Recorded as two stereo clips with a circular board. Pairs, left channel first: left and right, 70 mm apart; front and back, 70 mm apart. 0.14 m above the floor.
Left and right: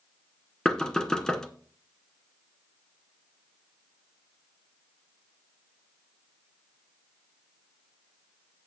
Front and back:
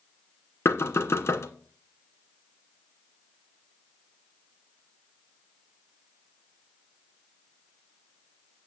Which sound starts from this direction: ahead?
Knocking, at 0.7 s.